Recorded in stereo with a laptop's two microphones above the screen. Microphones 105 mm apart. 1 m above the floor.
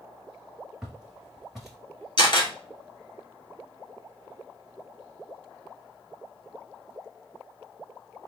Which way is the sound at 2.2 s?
50° left (ahead or behind).